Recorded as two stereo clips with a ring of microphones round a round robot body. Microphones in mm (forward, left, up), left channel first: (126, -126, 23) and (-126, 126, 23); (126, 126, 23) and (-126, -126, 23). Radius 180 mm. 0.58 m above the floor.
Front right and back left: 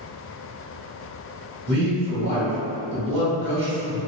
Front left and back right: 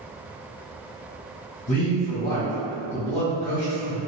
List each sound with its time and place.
1.7 s a man speaking: 100° left, 1.4 m